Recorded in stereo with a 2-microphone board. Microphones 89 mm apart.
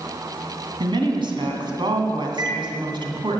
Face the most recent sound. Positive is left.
turn(degrees=-55)  # may be behind; listen again after turning